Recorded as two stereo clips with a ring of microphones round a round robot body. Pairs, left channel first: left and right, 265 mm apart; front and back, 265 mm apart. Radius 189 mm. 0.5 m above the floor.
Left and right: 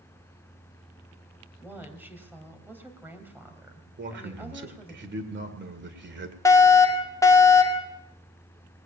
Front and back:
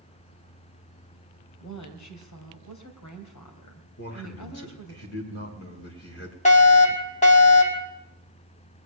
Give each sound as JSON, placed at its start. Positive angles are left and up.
{"t": 1.6, "sound": "a woman speaking", "azimuth_deg": -5, "distance_m": 3.0}
{"t": 4.0, "sound": "a man speaking", "azimuth_deg": -50, "distance_m": 2.5}
{"t": 6.5, "sound": "a fire alarm", "azimuth_deg": 25, "distance_m": 2.0}